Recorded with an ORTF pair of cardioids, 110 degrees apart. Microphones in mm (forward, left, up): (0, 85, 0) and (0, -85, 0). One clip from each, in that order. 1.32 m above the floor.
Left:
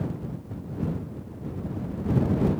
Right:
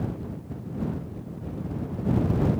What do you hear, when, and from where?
Only background noise.